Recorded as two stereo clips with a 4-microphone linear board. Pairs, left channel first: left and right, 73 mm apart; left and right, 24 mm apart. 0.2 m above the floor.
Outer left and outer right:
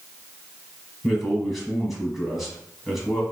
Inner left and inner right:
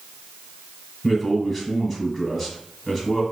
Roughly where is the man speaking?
Centre.